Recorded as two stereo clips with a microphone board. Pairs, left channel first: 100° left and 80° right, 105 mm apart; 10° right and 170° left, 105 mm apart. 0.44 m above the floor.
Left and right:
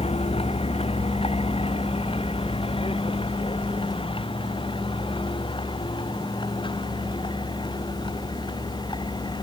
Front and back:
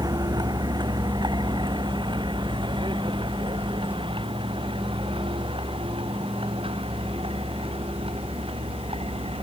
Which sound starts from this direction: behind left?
A vehicle, at 0.0 s.